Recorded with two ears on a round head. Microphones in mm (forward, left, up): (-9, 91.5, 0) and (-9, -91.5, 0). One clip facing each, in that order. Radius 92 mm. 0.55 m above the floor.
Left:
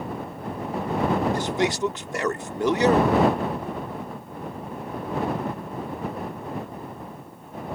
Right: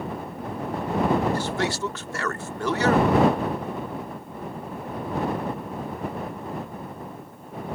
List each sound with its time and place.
1.3 s a man speaking: 15° left (ahead or behind)